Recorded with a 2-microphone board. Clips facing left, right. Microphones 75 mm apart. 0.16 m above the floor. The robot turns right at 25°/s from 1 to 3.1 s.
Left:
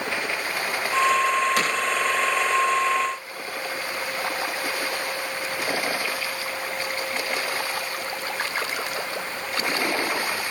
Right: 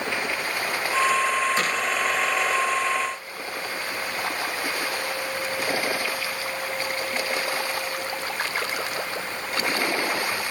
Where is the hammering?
75° left (ahead or behind), 8 m; by 1.7 s 70° left (ahead or behind), 8 m.